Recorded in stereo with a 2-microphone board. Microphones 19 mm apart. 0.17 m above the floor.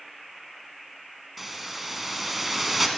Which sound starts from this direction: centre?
A hiss, at 1.4 s.